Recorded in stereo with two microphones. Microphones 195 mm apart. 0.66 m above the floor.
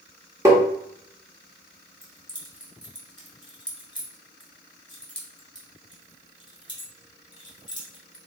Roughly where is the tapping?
Centre.